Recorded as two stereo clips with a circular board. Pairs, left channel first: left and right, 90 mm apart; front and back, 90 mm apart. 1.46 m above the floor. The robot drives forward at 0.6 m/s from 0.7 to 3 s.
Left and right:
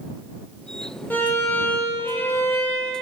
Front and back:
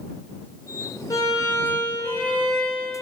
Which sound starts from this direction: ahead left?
A violin, at 1.1 s.